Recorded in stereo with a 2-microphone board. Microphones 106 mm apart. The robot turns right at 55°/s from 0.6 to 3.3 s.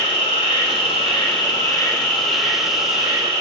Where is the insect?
80° left, 1.2 m; by 3.4 s 130° right, 1.2 m.